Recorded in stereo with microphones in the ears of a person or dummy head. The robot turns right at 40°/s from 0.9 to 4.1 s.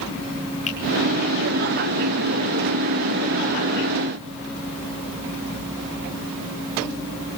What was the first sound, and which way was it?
A finger snap, 35° left (ahead or behind).